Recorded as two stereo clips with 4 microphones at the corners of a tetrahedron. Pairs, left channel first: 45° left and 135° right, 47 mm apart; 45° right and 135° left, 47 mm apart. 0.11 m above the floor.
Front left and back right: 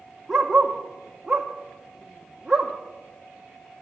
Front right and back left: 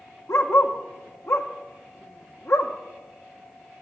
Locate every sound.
0.3 s a dog barking: 50° right, 1.2 m